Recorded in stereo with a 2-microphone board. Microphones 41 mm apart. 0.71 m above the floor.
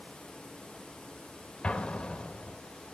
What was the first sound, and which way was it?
An explosion, 25° left (ahead or behind).